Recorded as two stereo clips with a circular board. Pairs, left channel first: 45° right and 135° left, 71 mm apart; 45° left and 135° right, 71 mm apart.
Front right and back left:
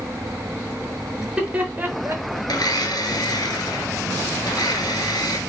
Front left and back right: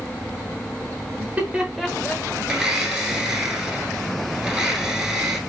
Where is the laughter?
150° right, 1.0 m; by 2.4 s 110° left, 1.3 m.